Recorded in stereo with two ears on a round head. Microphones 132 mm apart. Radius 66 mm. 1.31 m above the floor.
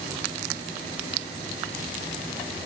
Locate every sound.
Only background noise.